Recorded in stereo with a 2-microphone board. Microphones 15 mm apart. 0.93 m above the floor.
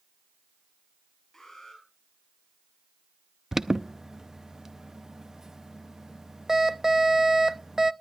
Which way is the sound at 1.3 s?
35° left (ahead or behind).